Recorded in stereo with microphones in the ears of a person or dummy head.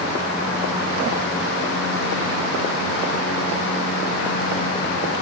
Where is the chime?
No chime in this recording.